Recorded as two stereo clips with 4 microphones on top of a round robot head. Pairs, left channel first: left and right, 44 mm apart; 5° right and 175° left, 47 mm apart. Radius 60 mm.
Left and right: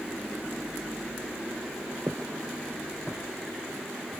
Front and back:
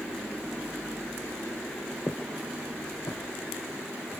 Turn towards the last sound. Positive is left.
turn(degrees=5)